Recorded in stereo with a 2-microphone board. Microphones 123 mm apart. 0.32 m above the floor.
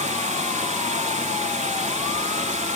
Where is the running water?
75° right (ahead or behind), 0.8 m.